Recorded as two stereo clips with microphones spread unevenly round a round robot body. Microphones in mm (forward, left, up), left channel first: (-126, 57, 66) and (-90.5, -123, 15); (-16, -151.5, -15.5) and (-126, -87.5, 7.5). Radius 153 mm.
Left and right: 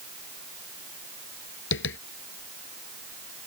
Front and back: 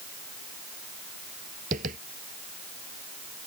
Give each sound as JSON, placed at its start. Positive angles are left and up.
{"t": 1.7, "sound": "tapping", "azimuth_deg": 105}